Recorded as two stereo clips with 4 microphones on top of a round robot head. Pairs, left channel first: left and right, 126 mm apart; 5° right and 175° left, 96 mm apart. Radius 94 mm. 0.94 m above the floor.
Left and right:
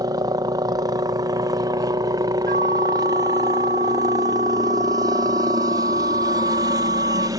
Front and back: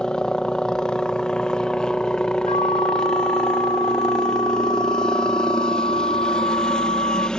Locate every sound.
0.0 s a helicopter: 80° right
2.5 s a flute: 55° right